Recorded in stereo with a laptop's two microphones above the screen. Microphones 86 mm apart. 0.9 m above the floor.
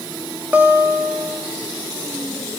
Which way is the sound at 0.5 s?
20° right (ahead or behind).